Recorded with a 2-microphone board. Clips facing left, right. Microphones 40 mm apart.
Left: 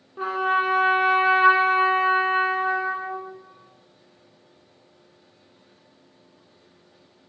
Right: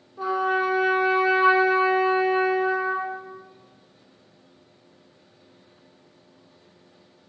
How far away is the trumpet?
About 0.5 m.